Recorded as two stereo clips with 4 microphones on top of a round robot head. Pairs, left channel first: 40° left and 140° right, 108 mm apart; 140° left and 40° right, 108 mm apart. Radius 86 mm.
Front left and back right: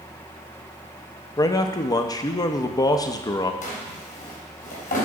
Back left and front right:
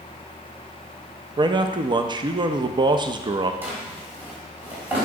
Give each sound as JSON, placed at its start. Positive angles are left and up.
{"t": 1.4, "sound": "a man speaking", "azimuth_deg": -5, "distance_m": 0.6}
{"t": 3.6, "sound": "a drawer", "azimuth_deg": 35, "distance_m": 1.6}